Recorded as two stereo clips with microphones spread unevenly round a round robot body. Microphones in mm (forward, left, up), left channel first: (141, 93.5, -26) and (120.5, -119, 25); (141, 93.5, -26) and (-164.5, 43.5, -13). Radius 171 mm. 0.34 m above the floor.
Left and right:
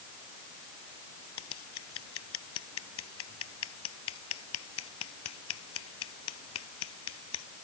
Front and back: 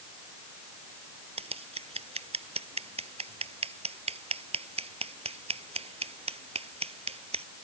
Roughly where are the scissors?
Behind left.